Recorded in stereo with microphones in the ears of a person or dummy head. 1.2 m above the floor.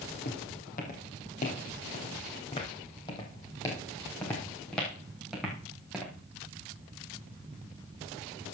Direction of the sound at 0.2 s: 50° left (ahead or behind).